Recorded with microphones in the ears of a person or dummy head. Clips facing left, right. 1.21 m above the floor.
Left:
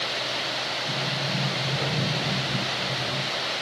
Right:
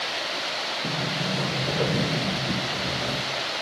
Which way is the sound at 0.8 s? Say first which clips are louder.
Right 4 dB; 85° right.